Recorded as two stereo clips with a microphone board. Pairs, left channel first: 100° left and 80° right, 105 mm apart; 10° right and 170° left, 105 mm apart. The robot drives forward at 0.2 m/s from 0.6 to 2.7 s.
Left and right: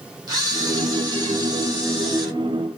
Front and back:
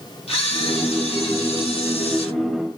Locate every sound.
0.3 s a camera shutter: 30° right, 3 m